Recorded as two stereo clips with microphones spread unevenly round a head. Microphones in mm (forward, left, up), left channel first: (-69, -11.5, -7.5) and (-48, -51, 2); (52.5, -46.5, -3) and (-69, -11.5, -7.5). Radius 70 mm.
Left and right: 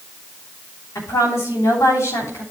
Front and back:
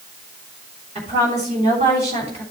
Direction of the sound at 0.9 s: 115° left.